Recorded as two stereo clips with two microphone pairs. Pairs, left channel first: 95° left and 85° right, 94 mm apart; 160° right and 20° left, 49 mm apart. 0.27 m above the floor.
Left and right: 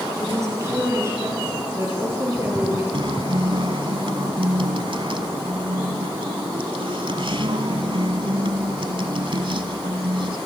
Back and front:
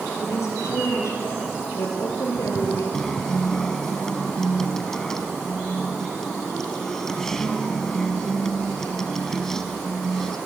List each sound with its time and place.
0.2 s a woman speaking: 145° right, 8 m; by 2.8 s 150° right, 6.5 m
2.9 s a guitar: 80° right, 1.2 m